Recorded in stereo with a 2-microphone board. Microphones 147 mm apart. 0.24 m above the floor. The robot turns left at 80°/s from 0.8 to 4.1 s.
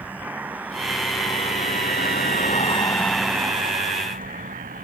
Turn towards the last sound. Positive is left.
turn(degrees=-70)  # may be behind; listen again after turning